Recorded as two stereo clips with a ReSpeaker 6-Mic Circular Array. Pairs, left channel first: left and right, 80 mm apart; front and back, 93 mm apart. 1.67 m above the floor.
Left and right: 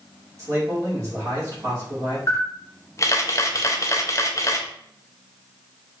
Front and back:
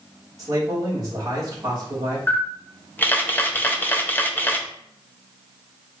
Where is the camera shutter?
60° left, 0.6 m.